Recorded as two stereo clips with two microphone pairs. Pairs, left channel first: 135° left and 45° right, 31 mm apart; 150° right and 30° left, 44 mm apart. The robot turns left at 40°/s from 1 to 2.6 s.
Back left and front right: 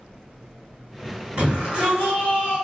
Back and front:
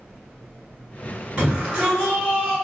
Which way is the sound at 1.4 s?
10° right.